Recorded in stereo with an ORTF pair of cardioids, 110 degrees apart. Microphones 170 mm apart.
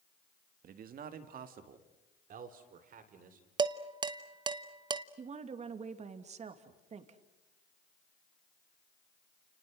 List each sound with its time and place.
0.6 s a man speaking: 60° right, 1.9 m; by 3.5 s 55° right, 5 m
3.6 s dishes clattering: 30° right, 1.2 m
5.2 s a woman speaking: 40° right, 2.5 m